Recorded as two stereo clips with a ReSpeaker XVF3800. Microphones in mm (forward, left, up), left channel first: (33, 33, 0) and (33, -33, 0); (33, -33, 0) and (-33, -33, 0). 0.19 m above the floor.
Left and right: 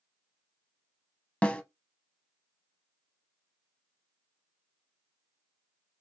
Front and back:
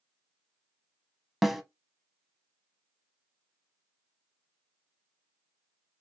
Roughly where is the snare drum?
Left.